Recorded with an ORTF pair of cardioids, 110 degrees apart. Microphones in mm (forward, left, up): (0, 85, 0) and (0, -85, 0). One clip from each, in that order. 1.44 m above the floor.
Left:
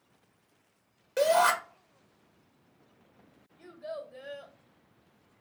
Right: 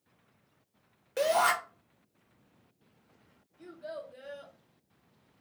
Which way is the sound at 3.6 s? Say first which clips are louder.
Left 2 dB; 5° left.